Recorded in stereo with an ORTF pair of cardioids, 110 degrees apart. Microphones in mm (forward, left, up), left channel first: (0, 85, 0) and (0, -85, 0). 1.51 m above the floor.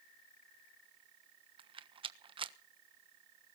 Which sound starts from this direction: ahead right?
A rattle, at 1.6 s.